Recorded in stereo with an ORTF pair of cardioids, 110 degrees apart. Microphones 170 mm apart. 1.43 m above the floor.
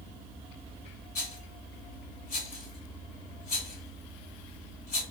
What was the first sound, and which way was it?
A rattle, 50° left.